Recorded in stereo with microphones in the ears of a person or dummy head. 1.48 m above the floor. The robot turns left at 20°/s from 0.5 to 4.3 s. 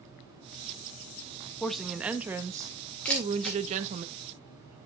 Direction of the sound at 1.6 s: 5° left.